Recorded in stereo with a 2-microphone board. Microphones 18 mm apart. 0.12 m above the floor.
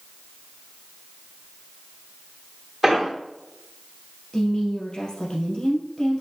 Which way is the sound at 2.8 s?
5° right (ahead or behind).